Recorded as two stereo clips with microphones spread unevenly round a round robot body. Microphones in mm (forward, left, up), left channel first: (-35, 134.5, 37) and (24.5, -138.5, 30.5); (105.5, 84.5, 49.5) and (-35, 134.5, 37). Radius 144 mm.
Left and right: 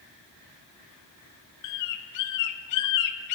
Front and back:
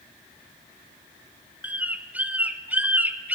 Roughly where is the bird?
Left.